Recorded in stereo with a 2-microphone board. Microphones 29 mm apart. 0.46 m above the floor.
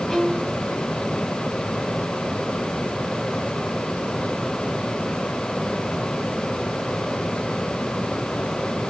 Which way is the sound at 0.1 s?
20° left (ahead or behind).